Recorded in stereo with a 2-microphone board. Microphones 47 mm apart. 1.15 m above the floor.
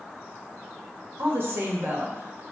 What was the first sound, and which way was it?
A woman speaking, 50° right (ahead or behind).